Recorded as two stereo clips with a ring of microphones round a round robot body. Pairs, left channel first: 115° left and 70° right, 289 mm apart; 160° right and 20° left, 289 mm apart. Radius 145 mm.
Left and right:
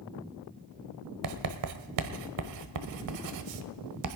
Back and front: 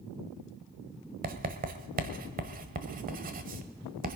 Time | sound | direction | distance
1.2 | writing | 40° right | 1.2 m